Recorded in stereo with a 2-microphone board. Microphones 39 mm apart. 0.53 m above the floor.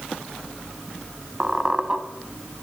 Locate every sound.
1.4 s a squeak: 20° right (ahead or behind), 1.1 m